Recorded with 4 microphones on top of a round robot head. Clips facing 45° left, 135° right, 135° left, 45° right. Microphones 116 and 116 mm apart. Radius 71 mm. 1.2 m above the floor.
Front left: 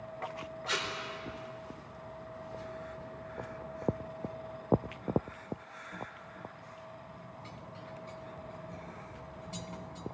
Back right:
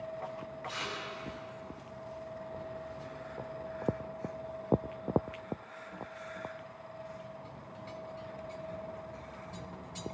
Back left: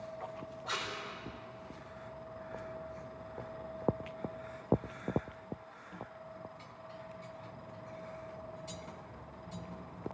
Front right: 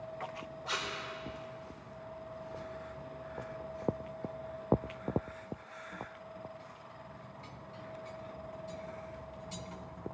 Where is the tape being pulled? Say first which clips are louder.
Front left 5 dB, front right 1 dB; 40° left, 4.5 m.